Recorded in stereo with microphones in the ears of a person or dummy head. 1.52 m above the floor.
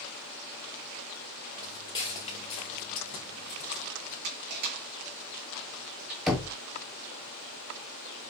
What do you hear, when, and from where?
1.6 s footsteps: 20° left (ahead or behind), 1.6 m; by 4.1 s 55° left (ahead or behind), 3 m
4.2 s crushing: 50° right (ahead or behind), 1.4 m
6.3 s knocking: centre (ahead or behind), 0.8 m